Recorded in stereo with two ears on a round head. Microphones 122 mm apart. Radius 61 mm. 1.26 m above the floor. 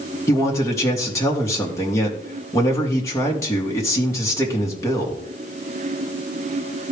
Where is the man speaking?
25° left (ahead or behind), 2.5 m.